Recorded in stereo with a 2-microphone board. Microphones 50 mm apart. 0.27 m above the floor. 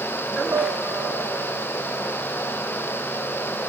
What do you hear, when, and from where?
0.5 s a piano: 75° right (ahead or behind), 0.5 m